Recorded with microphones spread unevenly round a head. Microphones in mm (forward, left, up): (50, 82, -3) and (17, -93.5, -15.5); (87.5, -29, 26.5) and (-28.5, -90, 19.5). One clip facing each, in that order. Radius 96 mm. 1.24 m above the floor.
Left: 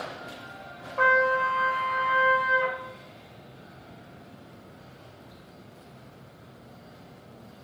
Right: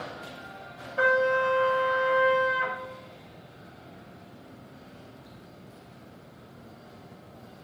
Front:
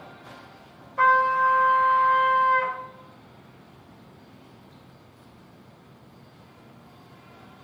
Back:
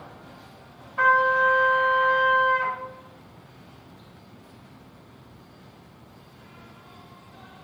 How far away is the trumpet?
About 3 m.